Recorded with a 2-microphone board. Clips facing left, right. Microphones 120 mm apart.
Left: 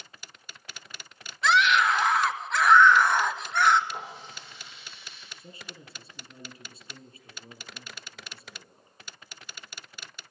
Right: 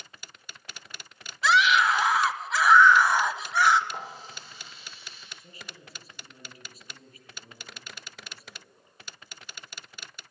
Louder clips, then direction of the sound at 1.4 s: Even; 5° right (ahead or behind).